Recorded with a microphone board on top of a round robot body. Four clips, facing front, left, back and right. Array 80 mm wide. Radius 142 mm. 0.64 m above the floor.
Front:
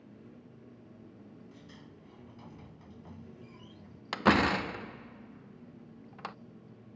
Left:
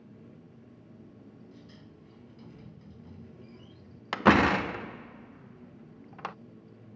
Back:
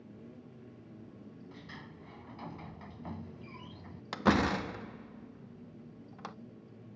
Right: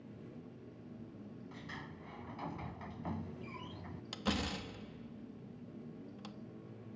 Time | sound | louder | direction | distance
1.5 | a sliding door | right 3 dB, back 3 dB | 120° right | ?
4.1 | a door slam | left 17 dB, front 2 dB | 75° left | ?